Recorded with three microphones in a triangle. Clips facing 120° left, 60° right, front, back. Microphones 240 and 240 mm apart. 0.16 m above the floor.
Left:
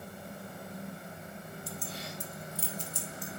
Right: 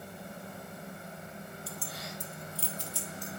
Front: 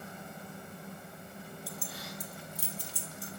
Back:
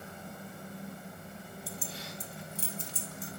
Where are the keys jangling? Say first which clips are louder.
Left 1 dB, back 1 dB; 170° left, 0.9 m; by 3.4 s 115° left, 1.7 m.